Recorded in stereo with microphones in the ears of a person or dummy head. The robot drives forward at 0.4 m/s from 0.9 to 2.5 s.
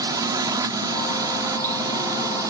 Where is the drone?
25° right (ahead or behind).